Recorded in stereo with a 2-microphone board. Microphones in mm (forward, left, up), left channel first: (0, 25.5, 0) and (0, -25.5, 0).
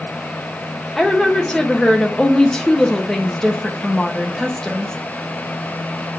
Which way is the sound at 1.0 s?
10° left (ahead or behind).